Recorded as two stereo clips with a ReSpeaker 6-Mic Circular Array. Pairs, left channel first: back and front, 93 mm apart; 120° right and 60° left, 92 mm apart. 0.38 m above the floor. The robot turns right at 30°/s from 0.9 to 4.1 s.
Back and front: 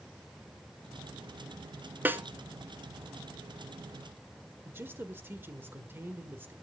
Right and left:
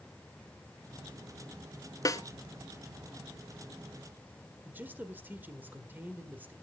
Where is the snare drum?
70° right, 0.9 m; by 2.2 s 65° right, 0.9 m.